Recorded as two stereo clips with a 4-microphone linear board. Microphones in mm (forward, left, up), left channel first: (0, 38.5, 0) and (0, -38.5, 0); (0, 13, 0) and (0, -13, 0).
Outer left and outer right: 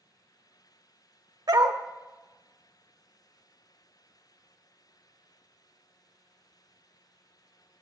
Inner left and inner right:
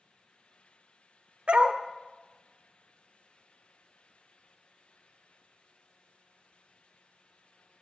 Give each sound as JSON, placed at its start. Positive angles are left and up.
{"t": 1.5, "sound": "a dog barking", "side_deg": -60, "distance_m": 0.7}